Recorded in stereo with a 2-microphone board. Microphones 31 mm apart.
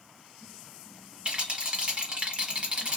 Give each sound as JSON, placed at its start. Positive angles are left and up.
{"t": 1.2, "sound": "a rattle", "side_deg": -40, "distance_m": 0.9}